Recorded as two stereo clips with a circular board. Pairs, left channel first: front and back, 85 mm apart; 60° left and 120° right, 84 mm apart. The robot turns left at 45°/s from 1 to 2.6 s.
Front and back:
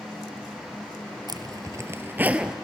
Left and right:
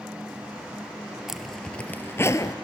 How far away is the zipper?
About 0.8 m.